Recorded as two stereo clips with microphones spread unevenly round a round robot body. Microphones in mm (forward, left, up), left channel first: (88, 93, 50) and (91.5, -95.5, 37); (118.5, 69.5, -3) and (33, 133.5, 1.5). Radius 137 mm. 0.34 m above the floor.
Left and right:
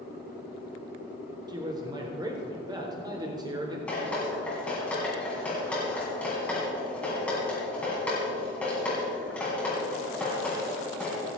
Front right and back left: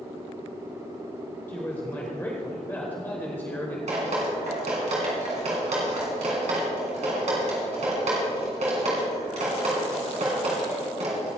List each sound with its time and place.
1.5 s a man speaking: 80° right, 1.3 m
3.9 s dripping: 175° left, 2.5 m